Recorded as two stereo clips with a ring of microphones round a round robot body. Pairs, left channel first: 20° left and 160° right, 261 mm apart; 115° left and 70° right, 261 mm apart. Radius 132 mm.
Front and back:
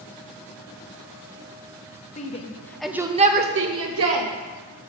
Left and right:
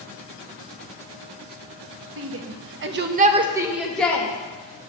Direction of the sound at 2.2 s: 35° right.